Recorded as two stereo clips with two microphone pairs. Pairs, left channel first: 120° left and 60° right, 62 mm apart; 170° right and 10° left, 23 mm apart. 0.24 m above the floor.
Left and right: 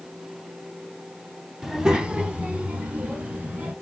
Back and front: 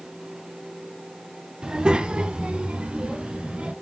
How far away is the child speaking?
About 0.7 m.